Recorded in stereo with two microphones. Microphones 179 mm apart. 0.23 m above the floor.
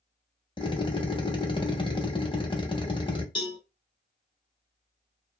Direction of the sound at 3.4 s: 25° left (ahead or behind).